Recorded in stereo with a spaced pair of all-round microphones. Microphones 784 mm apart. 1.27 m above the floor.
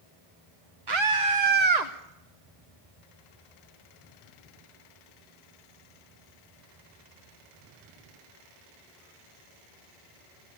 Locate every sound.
0.9 s a scream: 30° right (ahead or behind), 0.8 m; by 1.9 s 60° right (ahead or behind), 1.2 m